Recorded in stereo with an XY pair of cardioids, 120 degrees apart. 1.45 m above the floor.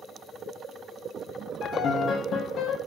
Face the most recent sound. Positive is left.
turn(degrees=55)